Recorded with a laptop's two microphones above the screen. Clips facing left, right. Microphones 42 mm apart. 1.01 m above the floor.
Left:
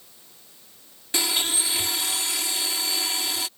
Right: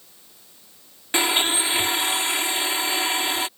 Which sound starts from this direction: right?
A blender, at 1.1 s.